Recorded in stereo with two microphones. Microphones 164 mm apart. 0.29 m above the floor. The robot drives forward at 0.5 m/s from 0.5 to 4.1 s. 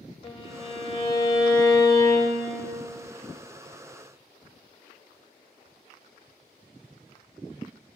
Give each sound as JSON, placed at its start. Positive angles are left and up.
{"t": 0.2, "sound": "a violin", "side_deg": 30, "distance_m": 0.8}